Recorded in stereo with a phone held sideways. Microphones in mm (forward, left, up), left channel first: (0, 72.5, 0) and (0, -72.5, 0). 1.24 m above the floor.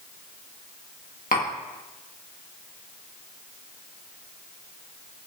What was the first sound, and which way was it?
Tapping, 70° left (ahead or behind).